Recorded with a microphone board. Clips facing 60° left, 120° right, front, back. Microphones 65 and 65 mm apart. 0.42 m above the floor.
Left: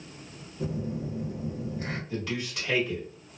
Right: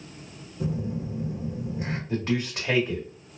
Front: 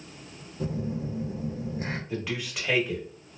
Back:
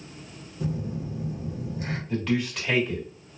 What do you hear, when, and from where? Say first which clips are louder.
0.6 s a phone buzzing: right 2 dB, even; 50° right, 1.0 m
2.1 s a man speaking: right 9 dB, back 6 dB; 85° right, 1.1 m